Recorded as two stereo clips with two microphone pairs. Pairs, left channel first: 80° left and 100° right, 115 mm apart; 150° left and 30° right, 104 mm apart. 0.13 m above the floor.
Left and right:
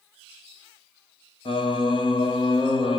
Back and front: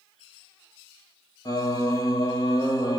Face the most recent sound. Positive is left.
turn(degrees=105)